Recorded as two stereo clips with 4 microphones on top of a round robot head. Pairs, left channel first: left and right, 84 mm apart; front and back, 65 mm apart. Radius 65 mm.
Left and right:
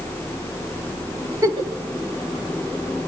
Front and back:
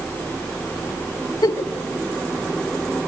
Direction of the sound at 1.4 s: 45° right.